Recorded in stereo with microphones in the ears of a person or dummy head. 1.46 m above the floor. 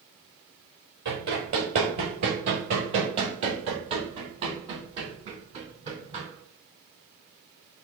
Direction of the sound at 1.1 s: 20° right (ahead or behind).